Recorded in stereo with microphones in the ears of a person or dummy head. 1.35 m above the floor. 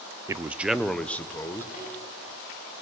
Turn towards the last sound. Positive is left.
turn(degrees=45)  # may be behind; listen again after turning